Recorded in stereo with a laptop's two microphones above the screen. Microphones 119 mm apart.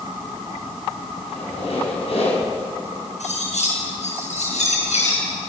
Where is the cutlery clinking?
85° left, 6.5 m.